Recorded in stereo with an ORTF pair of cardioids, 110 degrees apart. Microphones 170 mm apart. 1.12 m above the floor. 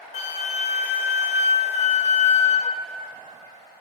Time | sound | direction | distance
0.1 | a flute | 40° left | 0.7 m